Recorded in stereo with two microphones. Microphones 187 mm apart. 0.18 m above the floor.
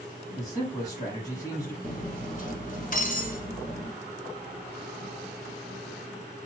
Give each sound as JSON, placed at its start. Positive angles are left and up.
{"t": 0.4, "sound": "a man speaking", "side_deg": 20, "distance_m": 1.2}
{"t": 1.8, "sound": "cutlery clinking", "side_deg": 45, "distance_m": 1.1}